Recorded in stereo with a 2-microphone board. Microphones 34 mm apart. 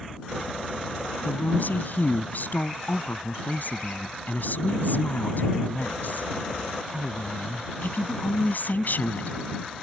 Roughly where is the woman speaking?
Left.